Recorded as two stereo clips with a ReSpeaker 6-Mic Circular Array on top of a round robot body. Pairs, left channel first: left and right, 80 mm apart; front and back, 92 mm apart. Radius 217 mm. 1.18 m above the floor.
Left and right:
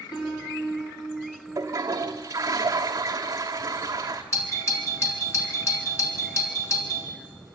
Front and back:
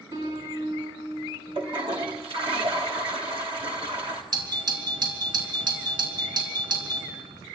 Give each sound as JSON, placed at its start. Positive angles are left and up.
{"t": 0.1, "sound": "a piano", "azimuth_deg": 130, "distance_m": 4.5}
{"t": 1.6, "sound": "a toilet flushing", "azimuth_deg": -150, "distance_m": 0.6}
{"t": 4.3, "sound": "a doorbell", "azimuth_deg": 140, "distance_m": 3.5}